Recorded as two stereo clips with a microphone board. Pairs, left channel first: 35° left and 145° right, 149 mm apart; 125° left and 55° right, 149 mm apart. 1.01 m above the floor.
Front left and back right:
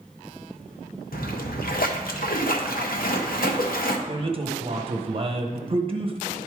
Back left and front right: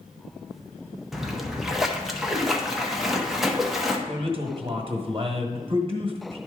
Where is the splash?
35° left, 0.9 m.